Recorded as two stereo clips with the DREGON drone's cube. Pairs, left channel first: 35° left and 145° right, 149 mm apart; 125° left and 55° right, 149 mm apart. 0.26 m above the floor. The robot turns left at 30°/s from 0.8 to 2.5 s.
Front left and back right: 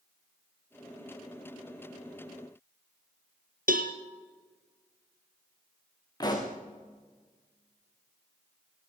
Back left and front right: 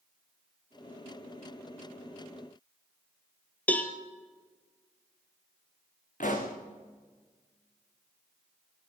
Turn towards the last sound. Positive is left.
turn(degrees=95)